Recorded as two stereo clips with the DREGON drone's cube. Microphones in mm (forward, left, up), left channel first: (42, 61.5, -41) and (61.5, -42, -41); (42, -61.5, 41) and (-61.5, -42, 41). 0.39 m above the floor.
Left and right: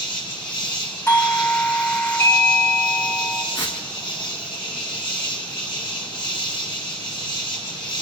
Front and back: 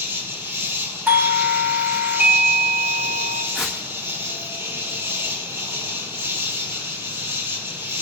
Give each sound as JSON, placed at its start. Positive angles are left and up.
{"t": 0.0, "sound": "an insect", "azimuth_deg": 110, "distance_m": 1.8}
{"t": 1.1, "sound": "a doorbell", "azimuth_deg": 115, "distance_m": 1.3}
{"t": 3.5, "sound": "tearing paper", "azimuth_deg": 85, "distance_m": 2.5}